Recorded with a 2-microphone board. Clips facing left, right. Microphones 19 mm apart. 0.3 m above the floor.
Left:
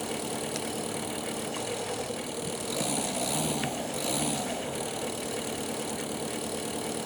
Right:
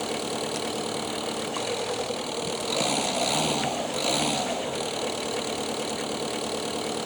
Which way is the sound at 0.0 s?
35° right (ahead or behind).